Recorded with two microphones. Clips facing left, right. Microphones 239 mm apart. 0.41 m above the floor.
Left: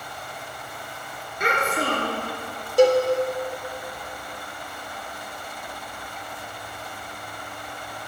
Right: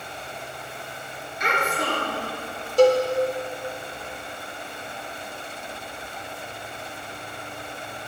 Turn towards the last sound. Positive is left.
turn(degrees=15)  # may be behind; listen again after turning